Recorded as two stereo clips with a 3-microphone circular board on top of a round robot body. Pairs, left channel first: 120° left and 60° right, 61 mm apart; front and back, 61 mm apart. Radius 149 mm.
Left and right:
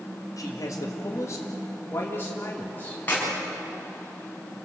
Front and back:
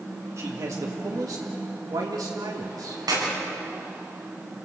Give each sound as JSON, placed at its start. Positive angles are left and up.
{"t": 0.4, "sound": "a man speaking", "azimuth_deg": 145, "distance_m": 2.0}
{"t": 3.1, "sound": "a clap", "azimuth_deg": -175, "distance_m": 7.5}